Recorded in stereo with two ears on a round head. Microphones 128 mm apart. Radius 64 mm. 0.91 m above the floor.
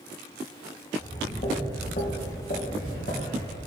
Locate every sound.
1.0 s footsteps: 40° left (ahead or behind), 3 m; by 3.6 s 70° left (ahead or behind), 2.5 m